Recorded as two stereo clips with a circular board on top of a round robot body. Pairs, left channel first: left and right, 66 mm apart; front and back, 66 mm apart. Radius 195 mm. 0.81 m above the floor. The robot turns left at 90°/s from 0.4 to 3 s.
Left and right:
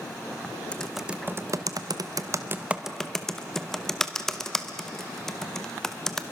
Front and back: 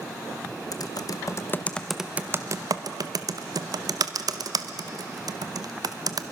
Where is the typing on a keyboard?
20° left, 1.1 m; by 6.2 s 175° left, 1.1 m.